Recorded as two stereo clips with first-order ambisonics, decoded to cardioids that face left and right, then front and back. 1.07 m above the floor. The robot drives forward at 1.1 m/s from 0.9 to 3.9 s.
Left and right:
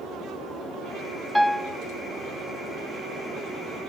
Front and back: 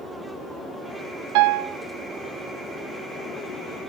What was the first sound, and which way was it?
A piano, straight behind.